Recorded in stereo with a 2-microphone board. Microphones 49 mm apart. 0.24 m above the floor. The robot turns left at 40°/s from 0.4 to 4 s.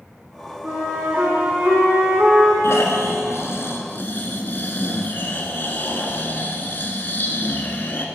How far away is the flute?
About 3 m.